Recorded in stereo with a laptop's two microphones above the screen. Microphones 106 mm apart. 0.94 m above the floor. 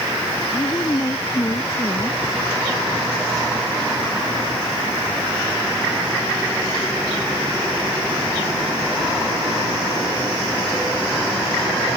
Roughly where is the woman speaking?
Left.